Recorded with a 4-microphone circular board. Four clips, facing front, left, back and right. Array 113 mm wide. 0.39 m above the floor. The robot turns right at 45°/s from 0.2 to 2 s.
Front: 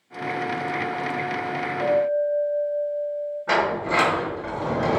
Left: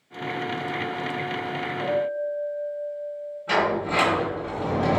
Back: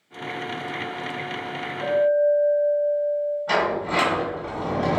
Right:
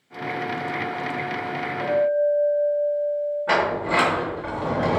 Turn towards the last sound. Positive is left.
turn(degrees=-55)